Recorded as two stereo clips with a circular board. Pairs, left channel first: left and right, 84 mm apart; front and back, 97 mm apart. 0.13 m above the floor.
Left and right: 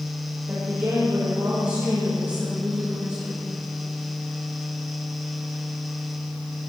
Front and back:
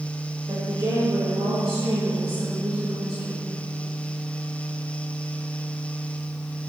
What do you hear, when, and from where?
0.5 s a woman speaking: 140° right, 3 m